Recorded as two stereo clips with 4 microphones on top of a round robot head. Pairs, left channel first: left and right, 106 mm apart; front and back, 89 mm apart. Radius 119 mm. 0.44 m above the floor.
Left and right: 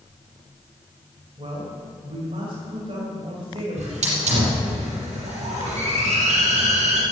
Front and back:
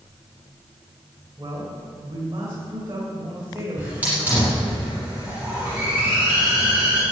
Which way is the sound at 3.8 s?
100° right.